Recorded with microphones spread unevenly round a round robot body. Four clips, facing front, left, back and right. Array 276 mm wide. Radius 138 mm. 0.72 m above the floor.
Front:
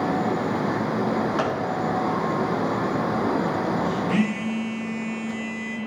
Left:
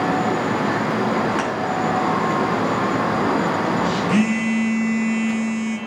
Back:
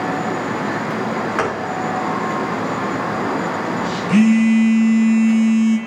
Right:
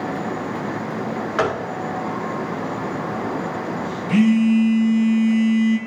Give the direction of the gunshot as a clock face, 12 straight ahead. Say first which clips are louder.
Right 1 dB, back 4 dB; 5 o'clock.